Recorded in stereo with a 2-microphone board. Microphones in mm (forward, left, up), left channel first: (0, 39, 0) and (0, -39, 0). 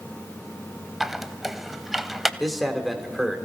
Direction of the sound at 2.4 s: Centre (ahead or behind).